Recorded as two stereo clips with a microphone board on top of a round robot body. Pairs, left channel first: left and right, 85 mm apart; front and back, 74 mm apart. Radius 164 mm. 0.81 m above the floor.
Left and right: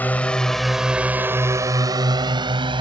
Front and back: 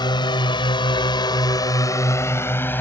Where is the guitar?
I don't hear a guitar.